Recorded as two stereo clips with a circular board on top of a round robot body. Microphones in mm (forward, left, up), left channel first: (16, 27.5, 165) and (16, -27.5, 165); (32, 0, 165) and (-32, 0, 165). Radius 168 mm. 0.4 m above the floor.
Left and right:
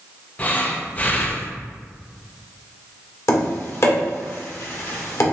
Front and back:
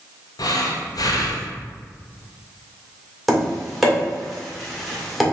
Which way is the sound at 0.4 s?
25° left.